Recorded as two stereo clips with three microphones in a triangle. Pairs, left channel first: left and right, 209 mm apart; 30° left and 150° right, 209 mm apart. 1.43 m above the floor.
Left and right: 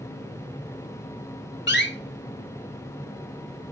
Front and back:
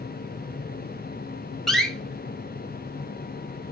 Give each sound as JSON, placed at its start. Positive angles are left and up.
{"t": 1.7, "sound": "a door slam", "azimuth_deg": 120, "distance_m": 1.5}